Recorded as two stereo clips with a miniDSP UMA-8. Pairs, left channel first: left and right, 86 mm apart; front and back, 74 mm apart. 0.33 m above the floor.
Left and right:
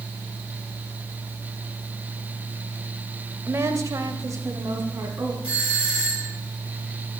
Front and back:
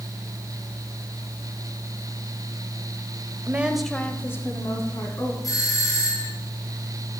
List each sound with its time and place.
3.5 s a woman speaking: 135° right, 1.1 m; by 5.3 s 30° right, 3 m
5.4 s a doorbell: 15° right, 3.5 m